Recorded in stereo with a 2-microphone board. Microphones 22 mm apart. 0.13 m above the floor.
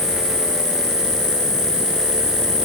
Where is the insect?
20° right (ahead or behind), 7 m.